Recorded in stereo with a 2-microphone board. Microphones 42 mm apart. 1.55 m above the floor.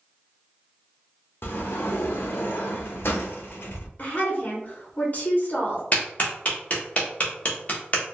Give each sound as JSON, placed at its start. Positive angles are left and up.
{"t": 1.4, "sound": "a sliding door", "side_deg": 65, "distance_m": 0.5}
{"t": 4.0, "sound": "a woman speaking", "side_deg": 40, "distance_m": 0.9}
{"t": 5.9, "sound": "a clap", "side_deg": 30, "distance_m": 0.9}